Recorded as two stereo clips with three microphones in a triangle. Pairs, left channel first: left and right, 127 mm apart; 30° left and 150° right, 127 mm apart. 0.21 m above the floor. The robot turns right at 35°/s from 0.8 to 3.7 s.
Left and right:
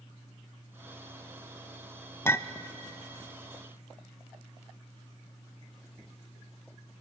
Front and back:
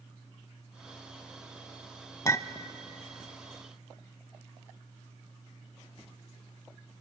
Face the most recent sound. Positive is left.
turn(degrees=100)